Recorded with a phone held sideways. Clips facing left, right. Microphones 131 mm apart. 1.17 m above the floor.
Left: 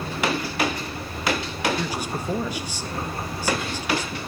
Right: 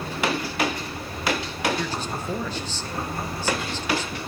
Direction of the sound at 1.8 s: 10° left (ahead or behind).